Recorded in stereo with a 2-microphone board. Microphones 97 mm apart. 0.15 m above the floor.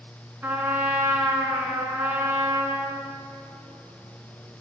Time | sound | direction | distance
0.4 | a trumpet | 25° right (ahead or behind) | 1.4 m